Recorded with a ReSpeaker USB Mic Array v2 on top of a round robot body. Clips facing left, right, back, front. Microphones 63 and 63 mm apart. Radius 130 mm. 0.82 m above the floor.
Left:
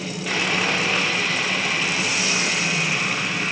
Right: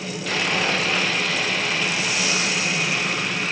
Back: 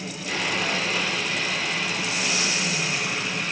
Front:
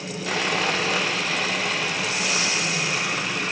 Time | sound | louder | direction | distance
0.3 | sawing | even, front 2 dB | 10° left | 1.8 m